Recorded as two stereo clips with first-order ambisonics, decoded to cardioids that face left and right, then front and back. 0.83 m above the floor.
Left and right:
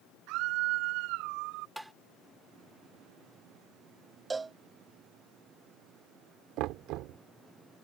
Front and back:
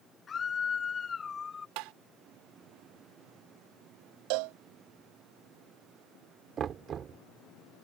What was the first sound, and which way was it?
A scream, 65° right.